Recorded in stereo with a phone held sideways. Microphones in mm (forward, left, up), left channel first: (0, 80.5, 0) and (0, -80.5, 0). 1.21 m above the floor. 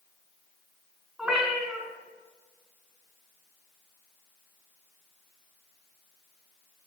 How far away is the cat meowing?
About 3 m.